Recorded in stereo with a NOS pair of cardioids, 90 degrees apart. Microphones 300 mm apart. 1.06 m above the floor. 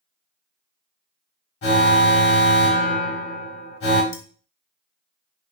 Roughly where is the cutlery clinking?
Ahead left.